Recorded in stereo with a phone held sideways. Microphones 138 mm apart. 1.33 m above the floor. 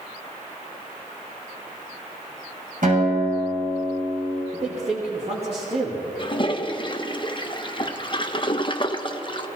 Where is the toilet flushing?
35° left (ahead or behind), 0.8 m.